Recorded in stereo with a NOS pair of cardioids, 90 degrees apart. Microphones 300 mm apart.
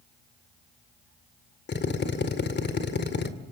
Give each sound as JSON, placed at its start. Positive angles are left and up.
{"t": 1.7, "sound": "a drill", "azimuth_deg": 35, "distance_m": 2.0}